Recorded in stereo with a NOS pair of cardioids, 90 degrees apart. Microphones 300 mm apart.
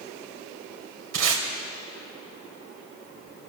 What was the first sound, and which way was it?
Tape being pulled, 55° right.